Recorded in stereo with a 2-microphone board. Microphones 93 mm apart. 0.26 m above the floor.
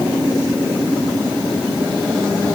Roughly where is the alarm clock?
I don't hear an alarm clock.